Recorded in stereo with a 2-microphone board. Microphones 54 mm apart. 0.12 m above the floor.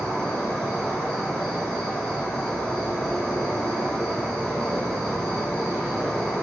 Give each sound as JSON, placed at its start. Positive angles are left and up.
{"t": 0.0, "sound": "an insect", "side_deg": 15, "distance_m": 1.6}